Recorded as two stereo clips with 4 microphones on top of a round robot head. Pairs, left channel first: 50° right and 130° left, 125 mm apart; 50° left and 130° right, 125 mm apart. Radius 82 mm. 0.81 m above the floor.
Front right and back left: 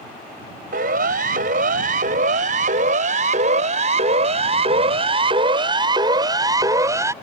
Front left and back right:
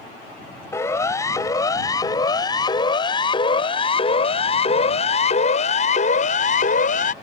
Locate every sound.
0.7 s a siren: 115° left; by 7.1 s 65° left